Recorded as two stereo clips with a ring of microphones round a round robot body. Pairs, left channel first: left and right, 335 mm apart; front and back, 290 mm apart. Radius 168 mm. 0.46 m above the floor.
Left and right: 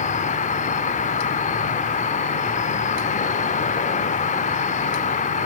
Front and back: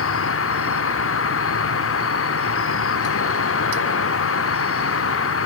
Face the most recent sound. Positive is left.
turn(degrees=25)